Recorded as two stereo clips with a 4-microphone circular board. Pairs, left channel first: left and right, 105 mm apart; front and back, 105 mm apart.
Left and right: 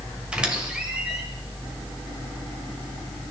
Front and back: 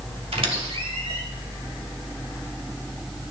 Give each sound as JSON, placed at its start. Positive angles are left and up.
{"t": 0.3, "sound": "a squeak", "azimuth_deg": -170, "distance_m": 1.8}